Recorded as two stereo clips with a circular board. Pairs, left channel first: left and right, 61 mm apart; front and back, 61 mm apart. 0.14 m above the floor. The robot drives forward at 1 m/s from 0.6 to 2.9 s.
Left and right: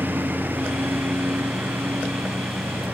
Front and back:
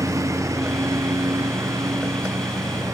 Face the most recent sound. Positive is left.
turn(degrees=-155)